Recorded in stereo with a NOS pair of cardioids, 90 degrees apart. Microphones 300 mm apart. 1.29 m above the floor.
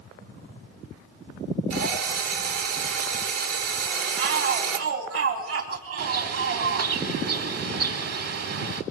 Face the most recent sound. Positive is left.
turn(degrees=-50)